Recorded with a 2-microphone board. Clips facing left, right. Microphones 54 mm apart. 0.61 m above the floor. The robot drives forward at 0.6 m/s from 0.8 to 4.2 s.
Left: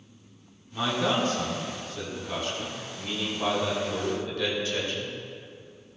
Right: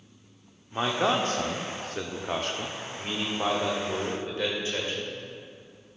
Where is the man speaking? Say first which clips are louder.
Right 1 dB; 40° right (ahead or behind), 1.2 m; by 5.2 s 30° right (ahead or behind), 1.7 m.